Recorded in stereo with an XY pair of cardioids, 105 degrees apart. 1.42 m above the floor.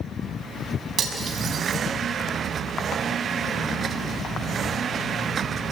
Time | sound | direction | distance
1.0 | cutlery clinking | 55° right | 6 m